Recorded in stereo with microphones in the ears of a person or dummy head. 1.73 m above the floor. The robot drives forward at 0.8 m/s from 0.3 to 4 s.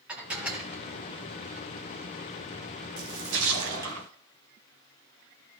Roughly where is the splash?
Right.